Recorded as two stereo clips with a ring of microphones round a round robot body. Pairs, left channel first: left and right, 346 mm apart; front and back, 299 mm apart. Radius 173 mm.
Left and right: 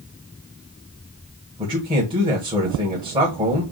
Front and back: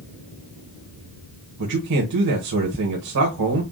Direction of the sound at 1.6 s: 165° right.